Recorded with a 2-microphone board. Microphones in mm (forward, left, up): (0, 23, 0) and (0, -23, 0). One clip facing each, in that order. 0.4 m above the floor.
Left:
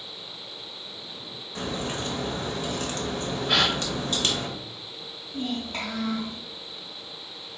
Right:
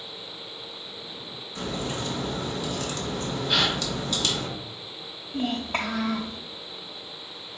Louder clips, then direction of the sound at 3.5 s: Left 1 dB; 60° left (ahead or behind).